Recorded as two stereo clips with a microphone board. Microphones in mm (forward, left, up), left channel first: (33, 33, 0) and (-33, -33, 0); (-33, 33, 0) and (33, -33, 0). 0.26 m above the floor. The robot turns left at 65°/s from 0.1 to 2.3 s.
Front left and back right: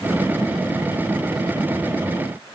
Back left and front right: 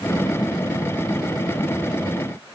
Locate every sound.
Only background noise.